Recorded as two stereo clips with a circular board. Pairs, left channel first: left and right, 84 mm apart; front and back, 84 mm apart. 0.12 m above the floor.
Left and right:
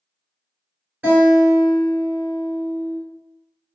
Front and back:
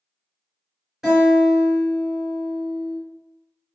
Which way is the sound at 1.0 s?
105° right.